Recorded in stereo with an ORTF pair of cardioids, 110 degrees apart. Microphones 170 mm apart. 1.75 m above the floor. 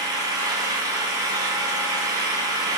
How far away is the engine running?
About 1.5 m.